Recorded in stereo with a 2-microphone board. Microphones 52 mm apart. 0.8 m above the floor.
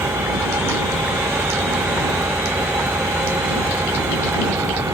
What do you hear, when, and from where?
0.0 s an engine running: 80° right